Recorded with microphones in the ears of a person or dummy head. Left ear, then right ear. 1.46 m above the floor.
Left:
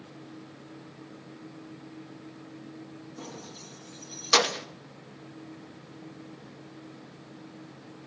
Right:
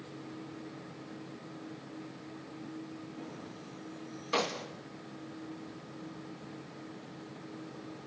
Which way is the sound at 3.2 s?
70° left (ahead or behind).